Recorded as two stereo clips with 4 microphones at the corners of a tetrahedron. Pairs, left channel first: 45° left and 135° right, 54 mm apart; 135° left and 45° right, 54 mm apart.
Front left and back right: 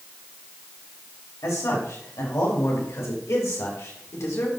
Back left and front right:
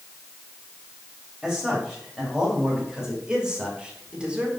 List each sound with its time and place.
1.4 s a man speaking: 35° left, 3.5 m; by 4.5 s 25° left, 2.0 m